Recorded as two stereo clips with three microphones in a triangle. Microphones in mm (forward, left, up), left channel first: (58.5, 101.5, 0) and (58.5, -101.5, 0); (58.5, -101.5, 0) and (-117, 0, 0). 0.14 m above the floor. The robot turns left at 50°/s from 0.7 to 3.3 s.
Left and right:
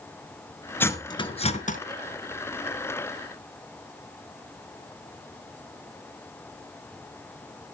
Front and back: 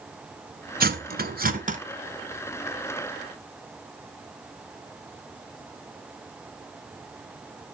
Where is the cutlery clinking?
165° left, 0.9 m; by 1.8 s 115° left, 0.9 m.